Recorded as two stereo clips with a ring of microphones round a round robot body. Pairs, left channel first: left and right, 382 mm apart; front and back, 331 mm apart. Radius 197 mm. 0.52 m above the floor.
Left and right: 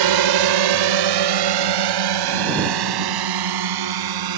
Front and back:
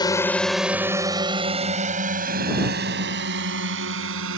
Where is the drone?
75° right; by 4.4 s 120° right.